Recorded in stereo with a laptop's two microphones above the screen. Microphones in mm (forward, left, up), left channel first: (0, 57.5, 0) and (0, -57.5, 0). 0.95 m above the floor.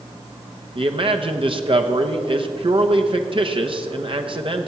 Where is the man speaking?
50° right (ahead or behind), 0.9 m.